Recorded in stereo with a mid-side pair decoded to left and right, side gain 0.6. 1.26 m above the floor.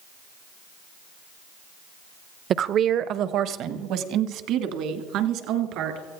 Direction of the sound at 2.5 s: 45° right.